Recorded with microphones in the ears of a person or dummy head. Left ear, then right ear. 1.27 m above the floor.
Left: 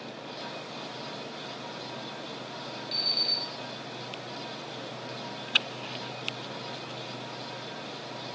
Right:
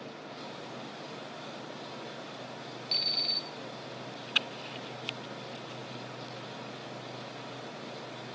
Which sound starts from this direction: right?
An alarm clock, at 2.9 s.